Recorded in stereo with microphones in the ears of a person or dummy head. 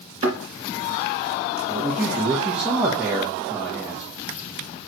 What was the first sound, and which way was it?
A thud, 35° right (ahead or behind).